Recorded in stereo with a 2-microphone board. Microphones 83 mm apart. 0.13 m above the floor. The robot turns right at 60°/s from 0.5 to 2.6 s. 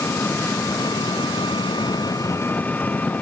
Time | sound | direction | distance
0.0 | an engine running | 30° left | ?